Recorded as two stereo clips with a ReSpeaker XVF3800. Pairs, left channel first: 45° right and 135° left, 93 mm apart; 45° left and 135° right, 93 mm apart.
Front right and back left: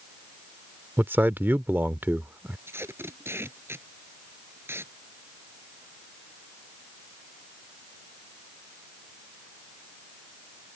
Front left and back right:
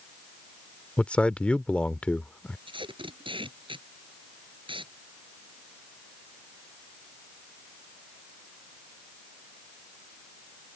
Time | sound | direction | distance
1.0 | a man speaking | 105° left | ?
2.7 | tape being pulled | 160° right | ?